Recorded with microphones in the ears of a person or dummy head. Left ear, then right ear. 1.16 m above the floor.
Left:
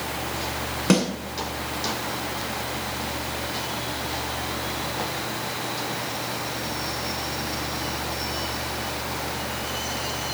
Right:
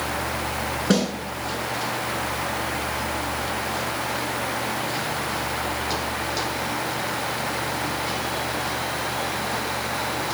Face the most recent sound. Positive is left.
turn(degrees=85)